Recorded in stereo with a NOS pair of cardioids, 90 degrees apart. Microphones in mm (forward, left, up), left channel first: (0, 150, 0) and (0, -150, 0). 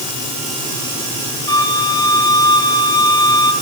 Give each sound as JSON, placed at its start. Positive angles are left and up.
{"t": 1.5, "sound": "a flute", "azimuth_deg": 15, "distance_m": 3.5}